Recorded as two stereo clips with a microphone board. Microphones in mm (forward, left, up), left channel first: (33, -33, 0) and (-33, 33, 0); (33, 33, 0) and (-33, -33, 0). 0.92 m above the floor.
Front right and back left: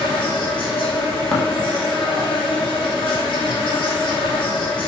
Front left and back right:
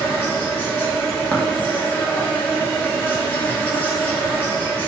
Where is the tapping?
20° left, 0.8 m.